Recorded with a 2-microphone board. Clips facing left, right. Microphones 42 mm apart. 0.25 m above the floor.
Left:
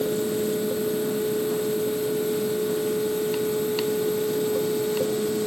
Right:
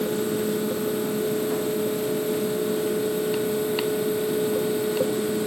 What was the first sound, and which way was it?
Only background noise.